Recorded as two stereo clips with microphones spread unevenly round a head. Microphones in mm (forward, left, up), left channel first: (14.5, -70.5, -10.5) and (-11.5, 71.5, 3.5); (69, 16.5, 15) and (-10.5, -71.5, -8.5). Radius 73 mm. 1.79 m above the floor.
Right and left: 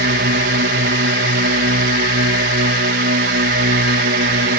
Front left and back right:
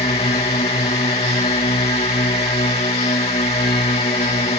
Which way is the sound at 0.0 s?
105° left.